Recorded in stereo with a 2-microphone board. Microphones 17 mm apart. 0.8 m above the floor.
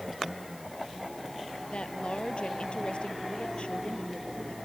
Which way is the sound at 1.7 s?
80° left.